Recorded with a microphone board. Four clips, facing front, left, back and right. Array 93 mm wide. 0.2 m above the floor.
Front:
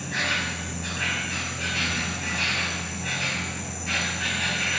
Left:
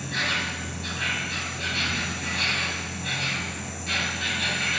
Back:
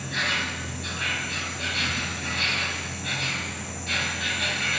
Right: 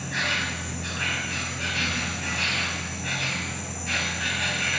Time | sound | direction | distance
0.0 | an insect | 45° right | 1.2 m